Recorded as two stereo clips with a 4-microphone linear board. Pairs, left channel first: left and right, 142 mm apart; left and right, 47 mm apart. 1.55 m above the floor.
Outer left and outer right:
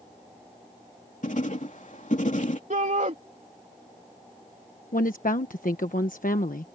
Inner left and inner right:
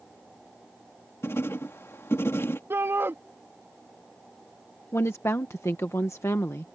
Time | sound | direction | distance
1.2 | writing | 65° left (ahead or behind) | ?
2.7 | a shout | 65° right (ahead or behind) | ?
4.9 | a woman speaking | 75° left (ahead or behind) | ?